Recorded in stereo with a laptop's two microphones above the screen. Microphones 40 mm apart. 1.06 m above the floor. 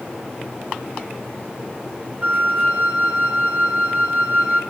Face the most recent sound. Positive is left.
turn(degrees=-25)  # may be behind; listen again after turning